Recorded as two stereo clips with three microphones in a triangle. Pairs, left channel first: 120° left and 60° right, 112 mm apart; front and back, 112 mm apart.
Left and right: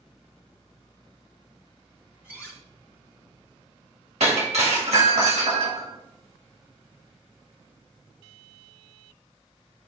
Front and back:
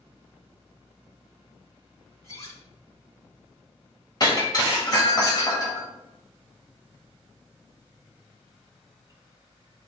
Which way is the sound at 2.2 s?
15° left.